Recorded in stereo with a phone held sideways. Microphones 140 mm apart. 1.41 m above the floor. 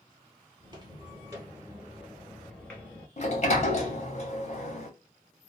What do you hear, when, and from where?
0.6 s footsteps: 30° right (ahead or behind), 1.6 m; by 3.1 s 15° left (ahead or behind), 1.4 m
3.2 s a sliding door: 50° left (ahead or behind), 0.9 m